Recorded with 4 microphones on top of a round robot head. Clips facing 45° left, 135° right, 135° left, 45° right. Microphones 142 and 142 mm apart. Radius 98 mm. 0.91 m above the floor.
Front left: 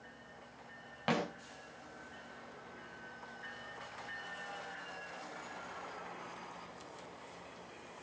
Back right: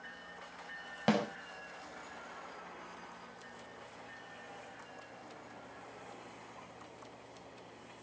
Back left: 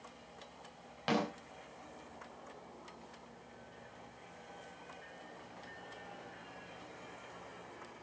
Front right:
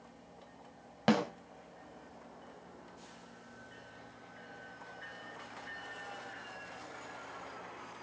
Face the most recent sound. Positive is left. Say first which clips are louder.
# back right 4 dB, front right 5 dB
turn(degrees=-85)